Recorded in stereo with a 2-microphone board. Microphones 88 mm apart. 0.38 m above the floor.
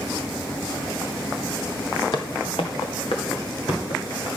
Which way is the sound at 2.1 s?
55° left (ahead or behind).